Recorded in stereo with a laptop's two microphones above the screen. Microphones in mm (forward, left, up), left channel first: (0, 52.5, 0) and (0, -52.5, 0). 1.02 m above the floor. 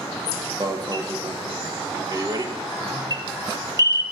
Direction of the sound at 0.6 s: 40° right (ahead or behind).